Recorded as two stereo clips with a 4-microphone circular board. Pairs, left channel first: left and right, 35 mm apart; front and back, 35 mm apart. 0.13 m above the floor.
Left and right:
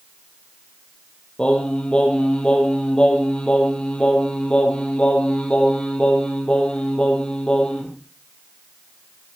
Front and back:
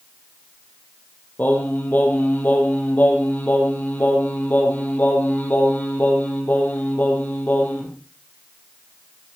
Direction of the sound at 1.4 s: 30° left.